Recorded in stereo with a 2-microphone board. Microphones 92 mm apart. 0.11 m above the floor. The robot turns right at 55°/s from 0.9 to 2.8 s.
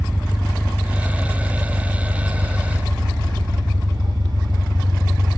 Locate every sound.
0.0 s an engine running: 165° right, 1.7 m; by 5.4 s 60° right, 1.7 m